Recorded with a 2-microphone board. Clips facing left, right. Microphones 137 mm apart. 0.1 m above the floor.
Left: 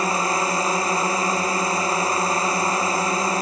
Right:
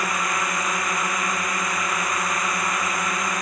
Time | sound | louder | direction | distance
0.0 | a drone | left 4 dB | 30° left (ahead or behind) | ?